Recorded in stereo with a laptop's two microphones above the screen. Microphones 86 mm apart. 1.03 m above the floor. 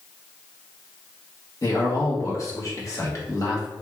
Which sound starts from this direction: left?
A man speaking, at 1.6 s.